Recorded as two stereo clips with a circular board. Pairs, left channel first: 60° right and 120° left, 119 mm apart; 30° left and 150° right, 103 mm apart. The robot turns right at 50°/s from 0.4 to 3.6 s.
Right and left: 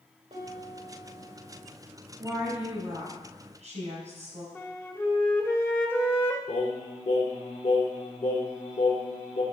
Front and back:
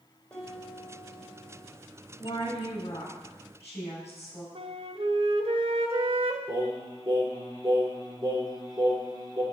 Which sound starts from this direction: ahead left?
A woman speaking, at 2.2 s.